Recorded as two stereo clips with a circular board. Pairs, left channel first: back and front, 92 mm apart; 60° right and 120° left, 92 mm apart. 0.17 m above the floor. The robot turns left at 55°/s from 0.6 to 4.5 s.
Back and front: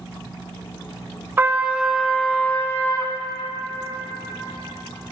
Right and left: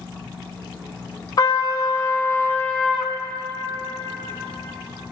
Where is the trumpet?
55° right, 0.5 m; by 3.1 s 150° right, 0.5 m.